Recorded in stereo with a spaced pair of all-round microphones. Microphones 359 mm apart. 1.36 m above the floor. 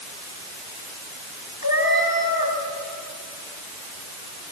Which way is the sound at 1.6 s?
70° left (ahead or behind).